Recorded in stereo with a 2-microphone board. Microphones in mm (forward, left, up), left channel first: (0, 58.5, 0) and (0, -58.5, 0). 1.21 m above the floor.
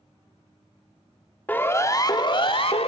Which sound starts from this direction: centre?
A siren, at 1.5 s.